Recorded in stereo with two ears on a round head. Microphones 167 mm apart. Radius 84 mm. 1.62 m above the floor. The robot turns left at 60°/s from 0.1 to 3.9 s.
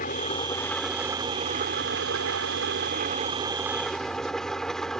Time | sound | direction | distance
0.0 | an engine running | 45° left | ?